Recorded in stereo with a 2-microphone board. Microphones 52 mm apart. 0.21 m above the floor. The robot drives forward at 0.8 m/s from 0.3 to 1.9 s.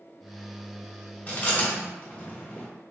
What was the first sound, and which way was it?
Chewing, 30° left (ahead or behind).